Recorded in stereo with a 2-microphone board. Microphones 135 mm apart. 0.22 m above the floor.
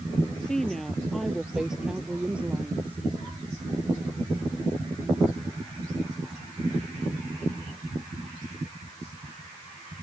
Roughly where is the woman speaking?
Centre.